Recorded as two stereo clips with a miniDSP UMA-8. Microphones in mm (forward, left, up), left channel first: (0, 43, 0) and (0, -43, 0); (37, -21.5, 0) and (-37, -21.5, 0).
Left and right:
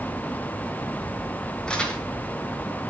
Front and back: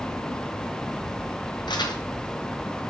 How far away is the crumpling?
About 3 m.